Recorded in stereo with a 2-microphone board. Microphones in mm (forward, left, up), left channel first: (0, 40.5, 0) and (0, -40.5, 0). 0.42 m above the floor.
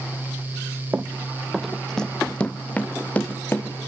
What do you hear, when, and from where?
0.9 s running footsteps: 25° right (ahead or behind), 0.6 m; by 3.7 s 25° left (ahead or behind), 2.0 m